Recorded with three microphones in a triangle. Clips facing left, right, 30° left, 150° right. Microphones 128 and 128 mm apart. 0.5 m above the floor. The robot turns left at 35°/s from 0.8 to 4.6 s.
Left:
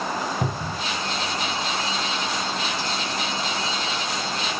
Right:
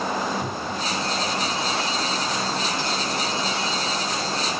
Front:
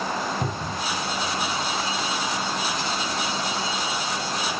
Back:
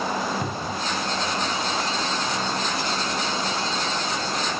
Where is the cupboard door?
95° left, 1.7 m.